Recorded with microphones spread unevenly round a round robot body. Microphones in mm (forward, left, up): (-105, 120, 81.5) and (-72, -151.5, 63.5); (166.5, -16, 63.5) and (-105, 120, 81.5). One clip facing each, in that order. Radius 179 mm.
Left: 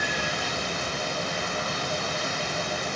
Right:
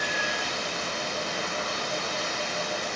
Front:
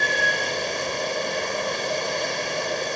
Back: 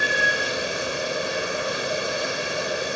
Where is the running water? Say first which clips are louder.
Left 2 dB, even; 70° left, 0.7 m.